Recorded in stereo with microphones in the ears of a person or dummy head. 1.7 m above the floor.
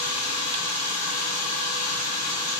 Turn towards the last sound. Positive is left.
turn(degrees=-5)  # may be behind; listen again after turning